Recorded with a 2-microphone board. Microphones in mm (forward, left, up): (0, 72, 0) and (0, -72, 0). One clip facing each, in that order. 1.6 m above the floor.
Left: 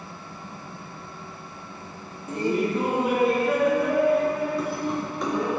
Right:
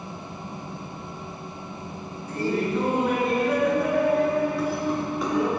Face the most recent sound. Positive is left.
turn(degrees=-5)  # may be behind; listen again after turning